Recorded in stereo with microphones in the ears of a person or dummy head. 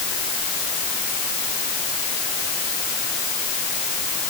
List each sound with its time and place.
Only background noise.